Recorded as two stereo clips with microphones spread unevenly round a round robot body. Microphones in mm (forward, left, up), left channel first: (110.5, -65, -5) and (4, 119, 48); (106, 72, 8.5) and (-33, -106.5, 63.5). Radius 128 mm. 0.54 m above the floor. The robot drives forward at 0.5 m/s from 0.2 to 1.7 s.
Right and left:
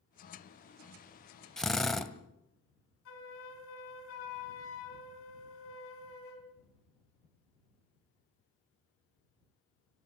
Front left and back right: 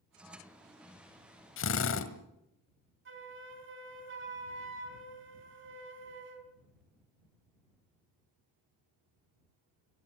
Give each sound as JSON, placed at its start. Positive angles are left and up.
{"t": 1.6, "sound": "a drill", "azimuth_deg": 25, "distance_m": 1.8}
{"t": 3.0, "sound": "a flute", "azimuth_deg": -90, "distance_m": 4.0}